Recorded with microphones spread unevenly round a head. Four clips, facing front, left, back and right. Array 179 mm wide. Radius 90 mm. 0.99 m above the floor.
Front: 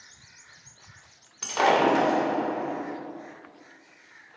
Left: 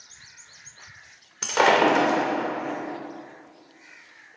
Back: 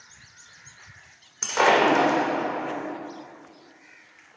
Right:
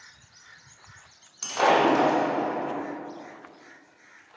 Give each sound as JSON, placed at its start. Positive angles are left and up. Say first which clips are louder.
{"t": 1.4, "sound": "breaking glass", "louder": "left 2 dB, back 2 dB", "azimuth_deg": 110, "distance_m": 2.5}